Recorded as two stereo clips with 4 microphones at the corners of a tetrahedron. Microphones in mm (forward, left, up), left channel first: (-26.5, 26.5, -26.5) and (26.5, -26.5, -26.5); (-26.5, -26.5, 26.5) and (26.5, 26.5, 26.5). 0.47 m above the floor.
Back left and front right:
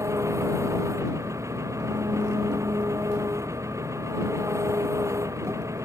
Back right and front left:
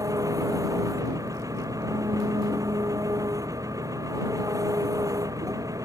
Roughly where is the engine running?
Ahead.